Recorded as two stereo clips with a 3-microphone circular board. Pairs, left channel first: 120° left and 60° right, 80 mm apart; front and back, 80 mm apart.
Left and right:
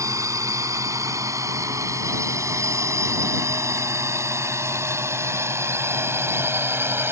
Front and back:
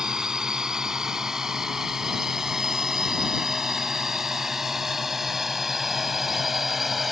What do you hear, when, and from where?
0.0 s a drone: 100° right; by 7.1 s 95° right